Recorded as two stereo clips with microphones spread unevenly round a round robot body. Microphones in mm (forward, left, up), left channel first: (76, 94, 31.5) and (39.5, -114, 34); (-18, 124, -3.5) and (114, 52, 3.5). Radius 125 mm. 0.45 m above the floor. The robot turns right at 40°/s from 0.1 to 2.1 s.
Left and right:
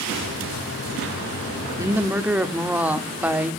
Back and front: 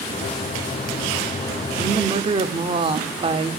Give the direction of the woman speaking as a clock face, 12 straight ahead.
1 o'clock.